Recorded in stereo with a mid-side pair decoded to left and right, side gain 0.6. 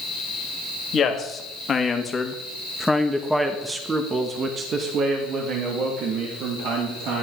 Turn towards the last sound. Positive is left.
turn(degrees=-70)